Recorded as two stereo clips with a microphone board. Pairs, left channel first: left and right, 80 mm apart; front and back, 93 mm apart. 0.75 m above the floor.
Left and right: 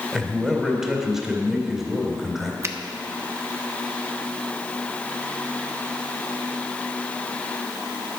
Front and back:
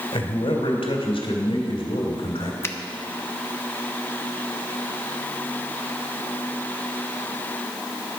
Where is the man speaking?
5° right, 2.5 m.